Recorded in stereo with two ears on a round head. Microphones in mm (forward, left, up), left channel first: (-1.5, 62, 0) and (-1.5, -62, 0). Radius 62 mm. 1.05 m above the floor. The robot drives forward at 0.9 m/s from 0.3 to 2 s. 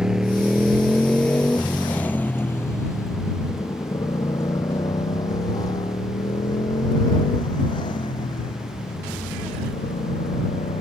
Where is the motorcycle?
5° right (ahead or behind); by 10.8 s 40° left (ahead or behind).